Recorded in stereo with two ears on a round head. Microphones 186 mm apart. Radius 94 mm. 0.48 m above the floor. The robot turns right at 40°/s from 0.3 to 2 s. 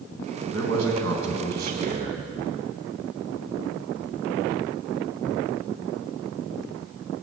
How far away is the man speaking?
About 3.5 m.